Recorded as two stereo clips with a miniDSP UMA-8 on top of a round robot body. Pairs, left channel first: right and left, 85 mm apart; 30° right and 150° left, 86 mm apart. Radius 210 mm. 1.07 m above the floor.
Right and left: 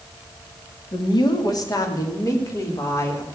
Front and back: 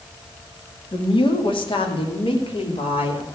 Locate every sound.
0.9 s a woman speaking: 55° right, 2.0 m; by 3.2 s 30° right, 3.5 m